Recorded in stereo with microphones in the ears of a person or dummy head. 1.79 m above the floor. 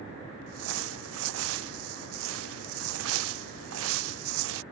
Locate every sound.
0.5 s crumpling: 75° right (ahead or behind)